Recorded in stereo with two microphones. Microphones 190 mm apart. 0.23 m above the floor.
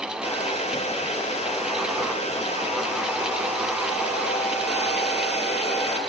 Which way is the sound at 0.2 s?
35° left (ahead or behind).